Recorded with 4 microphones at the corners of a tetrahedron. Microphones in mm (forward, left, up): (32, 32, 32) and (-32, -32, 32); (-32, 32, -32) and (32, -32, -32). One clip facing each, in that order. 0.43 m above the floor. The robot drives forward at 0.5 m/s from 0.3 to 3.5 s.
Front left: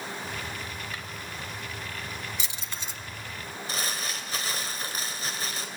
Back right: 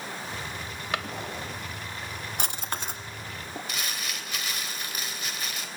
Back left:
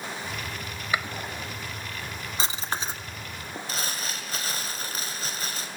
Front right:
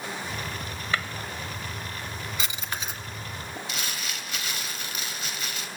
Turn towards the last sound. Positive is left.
turn(degrees=90)